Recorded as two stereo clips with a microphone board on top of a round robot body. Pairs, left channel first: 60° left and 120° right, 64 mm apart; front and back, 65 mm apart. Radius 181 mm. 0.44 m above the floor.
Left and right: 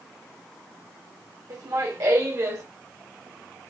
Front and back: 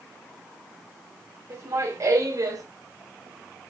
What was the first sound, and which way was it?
Laughter, 140° right.